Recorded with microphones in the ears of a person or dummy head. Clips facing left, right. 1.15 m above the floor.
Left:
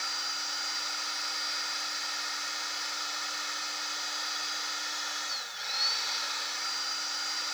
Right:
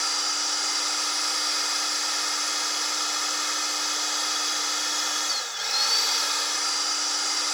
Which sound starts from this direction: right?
A machine running, at 0.0 s.